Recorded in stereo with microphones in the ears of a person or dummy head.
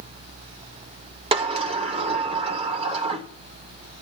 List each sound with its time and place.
1.3 s a sliding door: 30° right (ahead or behind), 0.7 m